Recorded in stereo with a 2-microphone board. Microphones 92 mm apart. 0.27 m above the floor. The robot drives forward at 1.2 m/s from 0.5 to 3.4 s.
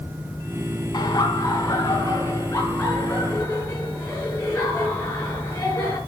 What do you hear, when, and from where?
0.9 s laughter: 45° left (ahead or behind), 3 m; by 6.0 s 25° left (ahead or behind), 5 m